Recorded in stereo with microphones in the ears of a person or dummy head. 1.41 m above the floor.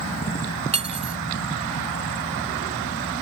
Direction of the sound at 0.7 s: 40° right (ahead or behind).